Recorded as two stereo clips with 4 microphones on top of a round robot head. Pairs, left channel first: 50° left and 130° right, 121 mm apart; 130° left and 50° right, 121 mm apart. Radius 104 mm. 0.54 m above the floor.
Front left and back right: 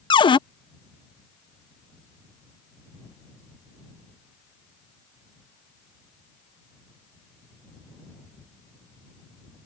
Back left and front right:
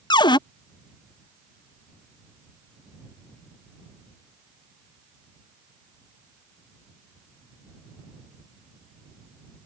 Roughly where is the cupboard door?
Left.